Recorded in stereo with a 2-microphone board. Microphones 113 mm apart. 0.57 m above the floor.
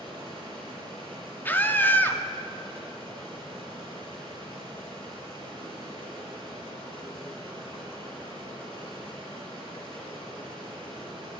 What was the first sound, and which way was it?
Running water, 40° right (ahead or behind).